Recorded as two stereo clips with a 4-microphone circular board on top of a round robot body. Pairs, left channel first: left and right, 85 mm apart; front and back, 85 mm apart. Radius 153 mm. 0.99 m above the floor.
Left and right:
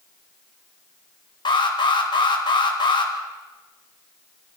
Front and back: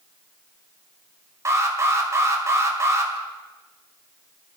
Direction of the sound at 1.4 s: 125° left.